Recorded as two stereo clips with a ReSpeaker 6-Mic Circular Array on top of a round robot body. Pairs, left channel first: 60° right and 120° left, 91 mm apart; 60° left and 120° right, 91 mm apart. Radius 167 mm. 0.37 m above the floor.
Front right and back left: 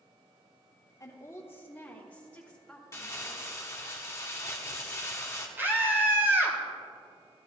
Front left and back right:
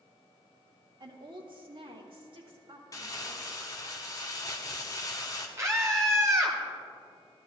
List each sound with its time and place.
1.0 s a woman speaking: 105° right, 1.8 m; by 3.6 s 145° right, 4 m
2.9 s crumpling: straight ahead, 0.9 m
5.6 s a scream: 175° right, 2.5 m